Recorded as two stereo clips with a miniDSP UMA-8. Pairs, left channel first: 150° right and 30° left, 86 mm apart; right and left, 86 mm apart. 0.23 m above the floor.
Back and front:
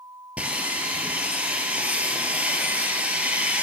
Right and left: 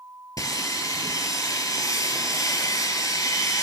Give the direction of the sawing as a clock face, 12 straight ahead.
1 o'clock.